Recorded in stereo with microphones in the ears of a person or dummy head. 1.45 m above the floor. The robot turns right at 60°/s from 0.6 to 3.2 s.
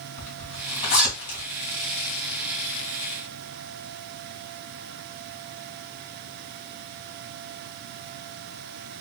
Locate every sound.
0.2 s a zipper: 35° left (ahead or behind), 2 m; by 1.4 s 60° left (ahead or behind), 2 m